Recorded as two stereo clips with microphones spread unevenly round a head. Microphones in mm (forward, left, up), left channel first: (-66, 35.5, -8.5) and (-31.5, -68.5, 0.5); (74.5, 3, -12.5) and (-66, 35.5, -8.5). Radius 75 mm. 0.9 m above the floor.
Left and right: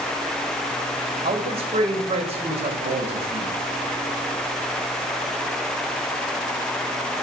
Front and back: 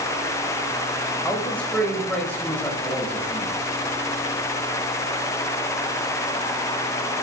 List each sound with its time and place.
1.2 s a man speaking: 95° right, 5 m